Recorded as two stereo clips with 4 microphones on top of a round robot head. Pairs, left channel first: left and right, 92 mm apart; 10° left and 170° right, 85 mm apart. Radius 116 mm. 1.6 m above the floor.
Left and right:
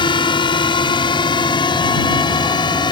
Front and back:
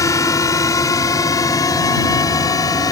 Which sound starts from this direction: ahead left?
A drone, at 0.0 s.